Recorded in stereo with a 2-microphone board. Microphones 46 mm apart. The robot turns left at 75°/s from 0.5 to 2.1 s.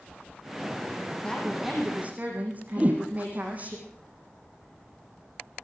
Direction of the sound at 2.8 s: 30° right (ahead or behind).